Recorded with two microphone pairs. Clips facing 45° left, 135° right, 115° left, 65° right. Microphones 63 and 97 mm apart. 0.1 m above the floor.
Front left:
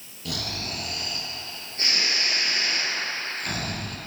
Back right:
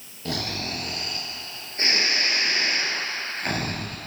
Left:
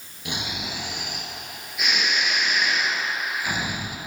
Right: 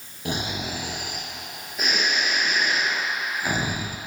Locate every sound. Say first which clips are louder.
0.2 s snoring: back right 3 dB, right 3 dB; 100° right, 1.6 m